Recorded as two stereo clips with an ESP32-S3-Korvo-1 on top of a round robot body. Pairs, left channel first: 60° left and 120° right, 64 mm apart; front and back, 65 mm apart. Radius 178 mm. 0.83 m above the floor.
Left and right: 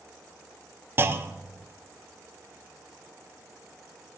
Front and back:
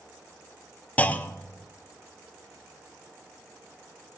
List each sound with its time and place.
1.0 s a clunk: 70° right, 0.5 m